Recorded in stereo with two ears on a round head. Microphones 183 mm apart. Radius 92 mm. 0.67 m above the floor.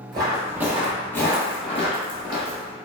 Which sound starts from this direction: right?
Footsteps, at 0.1 s.